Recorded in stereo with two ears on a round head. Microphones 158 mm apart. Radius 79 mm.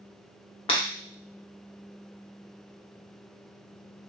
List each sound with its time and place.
0.7 s breaking glass: 30° left (ahead or behind), 0.8 m